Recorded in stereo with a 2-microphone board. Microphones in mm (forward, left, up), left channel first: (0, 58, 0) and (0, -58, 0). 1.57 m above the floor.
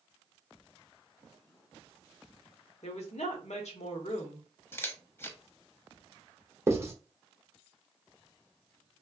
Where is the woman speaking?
80° left, 0.9 m.